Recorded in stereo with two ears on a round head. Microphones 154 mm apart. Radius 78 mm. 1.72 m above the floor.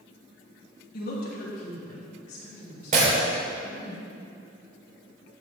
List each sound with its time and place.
0.9 s a woman speaking: 55° left (ahead or behind), 3 m; by 3.9 s 40° left (ahead or behind), 6 m
2.9 s breaking glass: 45° right (ahead or behind), 3.5 m